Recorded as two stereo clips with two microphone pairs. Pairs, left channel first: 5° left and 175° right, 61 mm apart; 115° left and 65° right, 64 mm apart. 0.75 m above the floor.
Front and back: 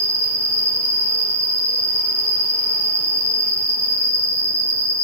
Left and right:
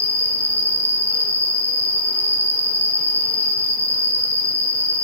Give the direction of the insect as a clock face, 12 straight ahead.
6 o'clock.